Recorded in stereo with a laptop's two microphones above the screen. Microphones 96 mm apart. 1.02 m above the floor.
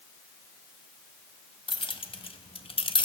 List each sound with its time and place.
1.7 s keys jangling: 60° left (ahead or behind), 0.9 m; by 3.1 s 55° left (ahead or behind), 0.5 m